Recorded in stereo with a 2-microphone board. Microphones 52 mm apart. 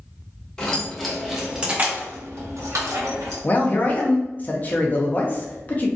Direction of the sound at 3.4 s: 30° left (ahead or behind).